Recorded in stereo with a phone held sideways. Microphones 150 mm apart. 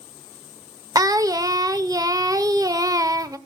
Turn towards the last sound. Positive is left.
turn(degrees=-25)  # may be behind; listen again after turning